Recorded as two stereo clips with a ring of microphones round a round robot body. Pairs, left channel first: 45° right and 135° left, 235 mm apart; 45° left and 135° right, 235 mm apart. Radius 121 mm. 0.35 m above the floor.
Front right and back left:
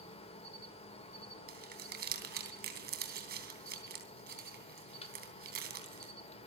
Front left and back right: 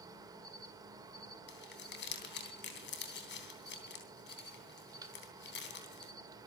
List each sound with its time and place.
0.0 s an insect: 75° right, 1.8 m
1.5 s crumpling: 85° left, 3 m